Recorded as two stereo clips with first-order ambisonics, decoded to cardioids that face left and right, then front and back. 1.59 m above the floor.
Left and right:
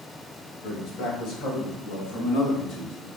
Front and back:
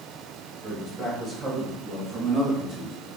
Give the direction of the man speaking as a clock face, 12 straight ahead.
9 o'clock.